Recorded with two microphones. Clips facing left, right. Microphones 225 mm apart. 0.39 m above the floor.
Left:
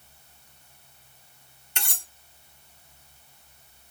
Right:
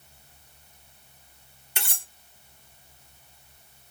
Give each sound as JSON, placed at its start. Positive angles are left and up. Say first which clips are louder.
{"t": 1.8, "sound": "cutlery clinking", "louder": "right 1 dB", "side_deg": -5, "distance_m": 1.7}